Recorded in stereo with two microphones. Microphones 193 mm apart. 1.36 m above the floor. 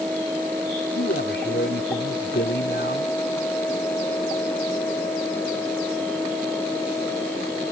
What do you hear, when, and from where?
0.9 s a man speaking: 65° left (ahead or behind)